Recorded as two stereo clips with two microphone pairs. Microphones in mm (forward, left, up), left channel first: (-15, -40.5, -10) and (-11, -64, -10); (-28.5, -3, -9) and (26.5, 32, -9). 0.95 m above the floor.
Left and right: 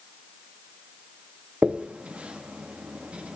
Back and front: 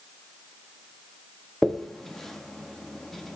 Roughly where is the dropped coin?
Ahead right.